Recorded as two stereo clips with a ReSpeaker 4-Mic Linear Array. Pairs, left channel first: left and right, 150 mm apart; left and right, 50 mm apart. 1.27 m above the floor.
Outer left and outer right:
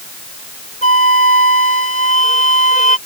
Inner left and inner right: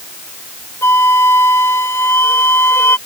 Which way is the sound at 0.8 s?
65° left (ahead or behind).